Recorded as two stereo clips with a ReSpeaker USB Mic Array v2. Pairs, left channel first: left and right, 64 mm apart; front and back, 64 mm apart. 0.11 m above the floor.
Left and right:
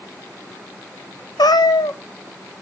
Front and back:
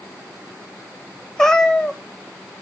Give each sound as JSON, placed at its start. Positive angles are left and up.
{"t": 1.4, "sound": "a cat meowing", "azimuth_deg": 80, "distance_m": 0.7}